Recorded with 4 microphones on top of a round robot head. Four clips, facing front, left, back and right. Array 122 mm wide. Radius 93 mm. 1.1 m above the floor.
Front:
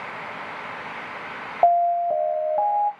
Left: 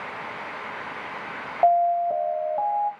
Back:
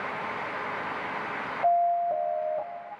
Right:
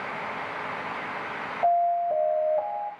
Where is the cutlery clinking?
I don't hear cutlery clinking.